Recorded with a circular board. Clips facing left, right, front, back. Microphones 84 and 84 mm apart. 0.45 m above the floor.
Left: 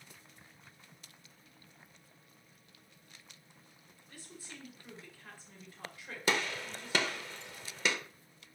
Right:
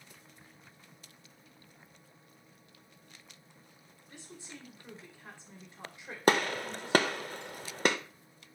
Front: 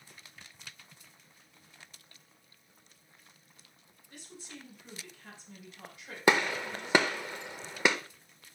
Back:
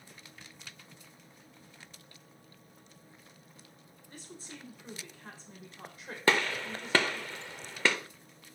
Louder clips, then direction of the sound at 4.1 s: Right 2 dB, back 1 dB; 150° right.